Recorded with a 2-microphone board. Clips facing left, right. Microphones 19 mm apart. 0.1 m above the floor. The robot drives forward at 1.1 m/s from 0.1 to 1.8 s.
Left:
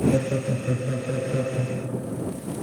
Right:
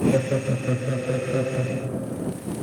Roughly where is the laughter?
Centre.